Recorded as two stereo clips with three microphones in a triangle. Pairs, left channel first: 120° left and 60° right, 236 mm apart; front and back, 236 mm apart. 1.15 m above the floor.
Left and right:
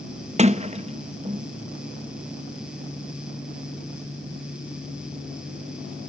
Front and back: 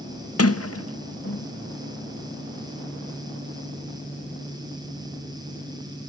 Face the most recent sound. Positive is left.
turn(degrees=5)